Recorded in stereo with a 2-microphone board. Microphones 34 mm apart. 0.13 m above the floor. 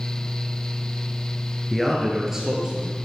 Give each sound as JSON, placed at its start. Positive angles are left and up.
{"t": 1.7, "sound": "a man speaking", "side_deg": 5, "distance_m": 1.8}